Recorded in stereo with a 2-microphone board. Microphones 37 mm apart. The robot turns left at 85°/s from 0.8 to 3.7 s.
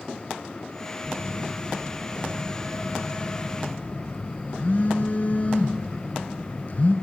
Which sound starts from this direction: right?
A phone buzzing, at 1.0 s.